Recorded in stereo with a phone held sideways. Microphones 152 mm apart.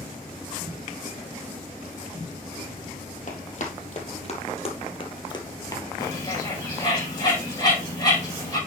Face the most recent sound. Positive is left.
turn(degrees=25)  # may be behind; listen again after turning